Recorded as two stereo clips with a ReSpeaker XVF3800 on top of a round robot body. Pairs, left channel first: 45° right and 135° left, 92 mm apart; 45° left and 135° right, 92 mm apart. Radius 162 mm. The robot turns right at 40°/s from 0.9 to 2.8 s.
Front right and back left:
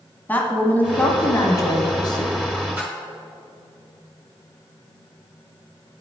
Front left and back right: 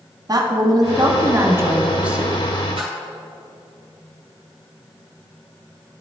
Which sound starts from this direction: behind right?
A splash, at 2.8 s.